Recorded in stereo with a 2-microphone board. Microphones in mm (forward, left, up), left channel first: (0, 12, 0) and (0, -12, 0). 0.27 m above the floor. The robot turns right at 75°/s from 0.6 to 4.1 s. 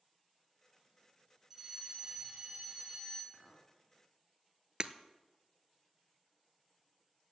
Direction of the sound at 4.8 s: 40° right (ahead or behind).